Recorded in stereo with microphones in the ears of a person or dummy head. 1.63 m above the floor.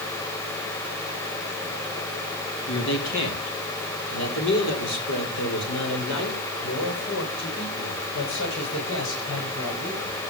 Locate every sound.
2.7 s a man speaking: 70° left (ahead or behind), 4 m